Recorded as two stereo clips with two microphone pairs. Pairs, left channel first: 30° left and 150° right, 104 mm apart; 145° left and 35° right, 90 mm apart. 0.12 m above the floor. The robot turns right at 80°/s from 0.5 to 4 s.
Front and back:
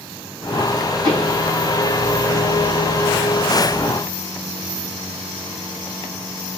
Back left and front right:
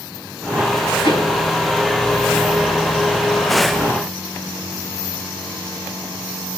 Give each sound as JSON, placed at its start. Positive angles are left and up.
{"t": 1.0, "sound": "a pop", "azimuth_deg": 160, "distance_m": 6.0}